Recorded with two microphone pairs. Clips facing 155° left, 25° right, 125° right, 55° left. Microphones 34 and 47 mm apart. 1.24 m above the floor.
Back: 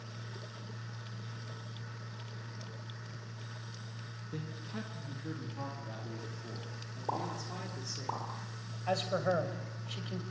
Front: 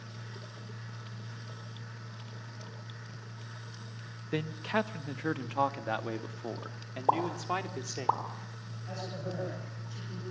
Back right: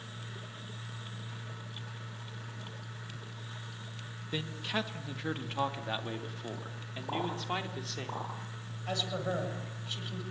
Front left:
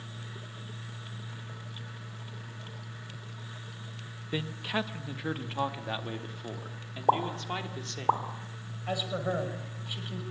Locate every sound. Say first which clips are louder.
4.3 s a man speaking: front 12 dB, front left 3 dB; 25° right, 1.5 m; by 8.1 s 40° right, 3.5 m
7.1 s a pop: front 9 dB, front left 7 dB; 25° left, 4.5 m
8.9 s a man speaking: back 8 dB, front left 3 dB; 130° left, 6.5 m